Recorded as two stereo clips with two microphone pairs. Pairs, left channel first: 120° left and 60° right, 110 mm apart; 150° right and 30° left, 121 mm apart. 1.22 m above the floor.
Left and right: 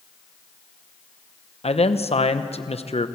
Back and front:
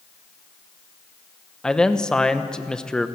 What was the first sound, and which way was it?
A man speaking, 125° left.